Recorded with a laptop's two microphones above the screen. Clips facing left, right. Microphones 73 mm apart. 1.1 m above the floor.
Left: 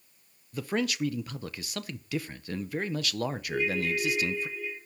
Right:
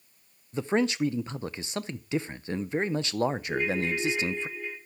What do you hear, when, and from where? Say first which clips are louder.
0.5 s a man speaking: right 4 dB; 25° right (ahead or behind), 0.6 m
3.5 s a ringtone: right 1 dB; 45° right (ahead or behind), 6.5 m